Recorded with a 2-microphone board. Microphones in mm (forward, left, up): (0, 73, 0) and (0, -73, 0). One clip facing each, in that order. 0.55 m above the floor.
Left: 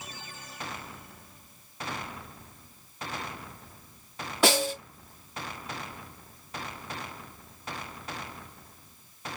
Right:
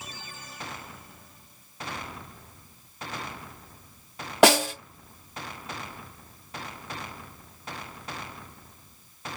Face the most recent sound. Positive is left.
turn(degrees=-80)